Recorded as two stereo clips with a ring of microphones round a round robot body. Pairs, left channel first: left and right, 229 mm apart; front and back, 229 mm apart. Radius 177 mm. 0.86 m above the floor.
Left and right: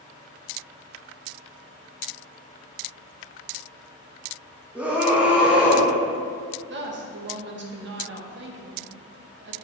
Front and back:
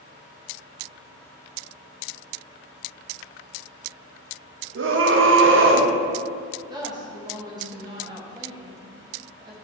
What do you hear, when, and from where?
4.8 s a scream: 175° right, 1.0 m
6.7 s a woman speaking: 110° right, 1.1 m